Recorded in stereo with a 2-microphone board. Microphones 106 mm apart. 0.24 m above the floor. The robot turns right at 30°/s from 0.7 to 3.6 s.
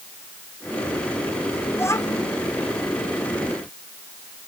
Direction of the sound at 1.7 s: 20° left (ahead or behind).